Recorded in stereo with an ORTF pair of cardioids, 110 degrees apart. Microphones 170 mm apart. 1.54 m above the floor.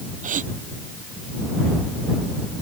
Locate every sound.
0.2 s a gasp: 45° right